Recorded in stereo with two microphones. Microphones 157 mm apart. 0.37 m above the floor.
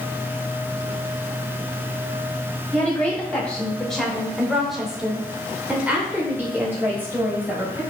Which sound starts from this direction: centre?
A woman speaking, at 2.7 s.